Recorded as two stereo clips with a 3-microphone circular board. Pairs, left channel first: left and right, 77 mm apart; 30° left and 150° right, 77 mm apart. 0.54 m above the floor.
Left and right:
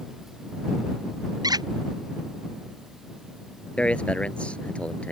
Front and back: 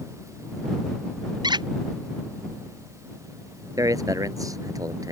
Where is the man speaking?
165° left.